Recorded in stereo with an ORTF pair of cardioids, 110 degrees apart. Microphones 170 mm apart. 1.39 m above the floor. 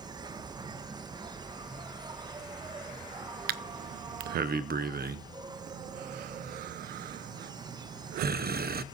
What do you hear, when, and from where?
0.0 s an insect: 25° right, 1.0 m
3.5 s breathing: 65° right, 0.9 m